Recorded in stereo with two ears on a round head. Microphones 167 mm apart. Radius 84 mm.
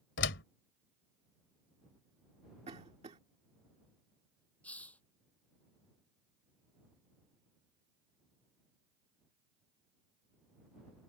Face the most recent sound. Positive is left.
turn(degrees=10)  # may be behind; listen again after turning